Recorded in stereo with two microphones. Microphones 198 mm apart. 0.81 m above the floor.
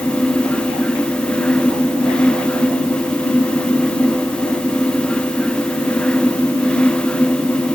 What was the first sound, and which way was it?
Only background noise.